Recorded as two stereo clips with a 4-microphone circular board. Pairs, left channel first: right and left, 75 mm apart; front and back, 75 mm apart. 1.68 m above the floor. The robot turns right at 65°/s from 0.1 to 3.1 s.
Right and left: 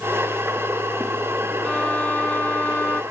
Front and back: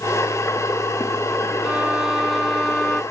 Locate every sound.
1.6 s a violin: 135° right, 0.9 m; by 3.0 s 45° right, 0.9 m